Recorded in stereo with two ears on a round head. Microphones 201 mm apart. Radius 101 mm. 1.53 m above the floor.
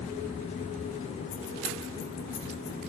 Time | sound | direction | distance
1.3 | keys jangling | 60° left (ahead or behind) | 1.1 m